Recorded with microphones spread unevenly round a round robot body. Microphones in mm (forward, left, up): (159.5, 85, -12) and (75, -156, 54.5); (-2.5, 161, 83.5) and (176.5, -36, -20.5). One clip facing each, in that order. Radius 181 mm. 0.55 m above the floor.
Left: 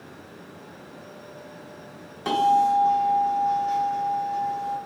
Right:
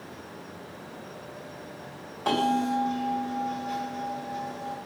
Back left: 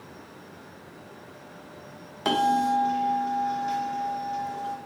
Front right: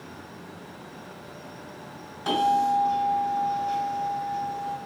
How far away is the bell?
About 0.9 m.